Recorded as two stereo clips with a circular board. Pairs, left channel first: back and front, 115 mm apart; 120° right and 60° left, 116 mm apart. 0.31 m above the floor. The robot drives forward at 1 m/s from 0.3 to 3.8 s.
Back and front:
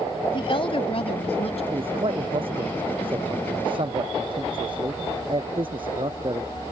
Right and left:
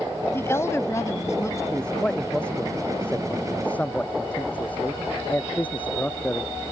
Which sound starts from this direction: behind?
A woman speaking, at 0.3 s.